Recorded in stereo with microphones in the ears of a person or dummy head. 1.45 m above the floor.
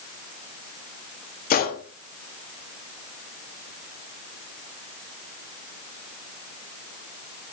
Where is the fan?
No fan in this recording.